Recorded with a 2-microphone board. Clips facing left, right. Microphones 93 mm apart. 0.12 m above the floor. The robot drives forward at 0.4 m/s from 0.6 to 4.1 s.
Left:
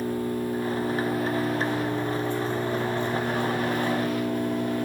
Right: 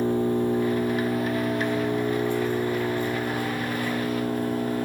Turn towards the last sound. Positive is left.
turn(degrees=-10)  # may be behind; listen again after turning